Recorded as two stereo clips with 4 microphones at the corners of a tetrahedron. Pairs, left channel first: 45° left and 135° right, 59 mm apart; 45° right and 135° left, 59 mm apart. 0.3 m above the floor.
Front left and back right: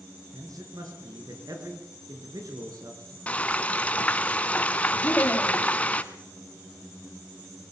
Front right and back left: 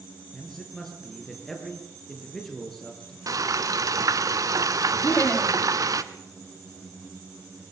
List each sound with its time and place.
0.3 s a man speaking: 130° right, 6 m
3.3 s frying: 115° left, 1.2 m
5.0 s laughter: straight ahead, 2 m